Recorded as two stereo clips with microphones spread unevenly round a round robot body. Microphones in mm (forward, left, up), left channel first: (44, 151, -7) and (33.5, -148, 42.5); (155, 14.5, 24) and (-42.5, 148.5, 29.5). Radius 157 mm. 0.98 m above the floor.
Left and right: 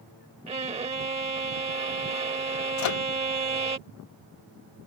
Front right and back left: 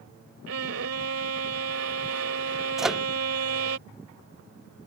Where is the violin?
165° right.